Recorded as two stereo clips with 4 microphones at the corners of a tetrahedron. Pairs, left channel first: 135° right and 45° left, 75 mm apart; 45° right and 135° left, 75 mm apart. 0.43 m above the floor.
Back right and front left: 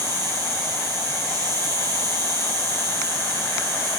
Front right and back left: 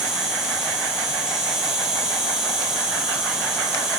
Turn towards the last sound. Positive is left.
turn(degrees=55)